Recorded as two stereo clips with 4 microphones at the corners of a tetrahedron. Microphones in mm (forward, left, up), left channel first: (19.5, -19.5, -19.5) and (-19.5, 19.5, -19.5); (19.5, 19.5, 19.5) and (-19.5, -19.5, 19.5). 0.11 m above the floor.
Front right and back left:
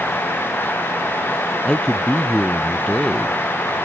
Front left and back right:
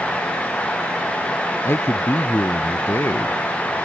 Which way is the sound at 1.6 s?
25° left.